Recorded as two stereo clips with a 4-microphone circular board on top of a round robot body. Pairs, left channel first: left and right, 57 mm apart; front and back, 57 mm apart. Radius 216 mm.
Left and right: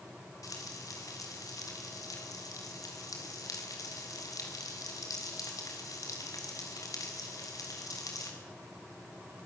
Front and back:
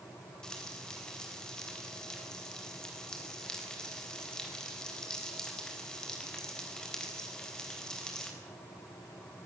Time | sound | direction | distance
0.4 | frying | 75° left | 4 m